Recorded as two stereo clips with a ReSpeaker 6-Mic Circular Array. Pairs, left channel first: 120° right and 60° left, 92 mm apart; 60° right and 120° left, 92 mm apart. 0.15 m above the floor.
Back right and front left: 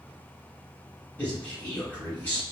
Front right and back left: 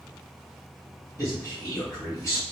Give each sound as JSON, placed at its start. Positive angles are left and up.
{"t": 1.2, "sound": "a man speaking", "azimuth_deg": -55, "distance_m": 2.0}